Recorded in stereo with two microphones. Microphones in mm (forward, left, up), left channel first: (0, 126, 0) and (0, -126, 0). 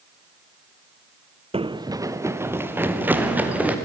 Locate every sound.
1.5 s running footsteps: 25° right (ahead or behind), 0.6 m; by 3.8 s 5° right (ahead or behind), 3 m